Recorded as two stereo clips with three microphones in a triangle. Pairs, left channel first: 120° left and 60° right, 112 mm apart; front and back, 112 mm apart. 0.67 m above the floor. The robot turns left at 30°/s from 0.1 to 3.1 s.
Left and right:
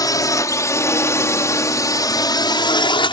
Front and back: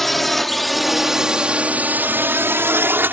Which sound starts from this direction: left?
A drone, at 0.0 s.